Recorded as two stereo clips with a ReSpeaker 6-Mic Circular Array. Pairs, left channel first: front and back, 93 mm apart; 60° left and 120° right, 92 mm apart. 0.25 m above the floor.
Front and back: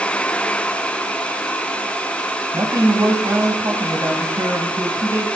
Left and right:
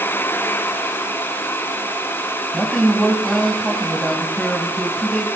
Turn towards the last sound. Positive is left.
turn(degrees=145)